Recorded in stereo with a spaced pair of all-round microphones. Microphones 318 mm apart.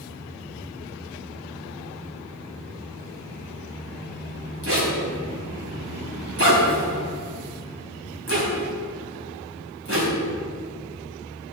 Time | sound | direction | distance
4.6 | a zipper | 45° right (ahead or behind) | 4 m